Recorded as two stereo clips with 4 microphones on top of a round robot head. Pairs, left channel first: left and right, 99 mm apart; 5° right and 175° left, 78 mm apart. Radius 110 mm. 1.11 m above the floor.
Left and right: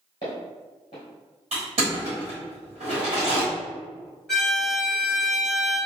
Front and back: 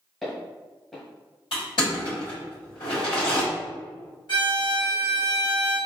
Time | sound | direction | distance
0.2 | footsteps | 75° left | 1.1 m
1.5 | crushing | 45° right | 1.4 m
4.3 | a violin | 5° left | 1.2 m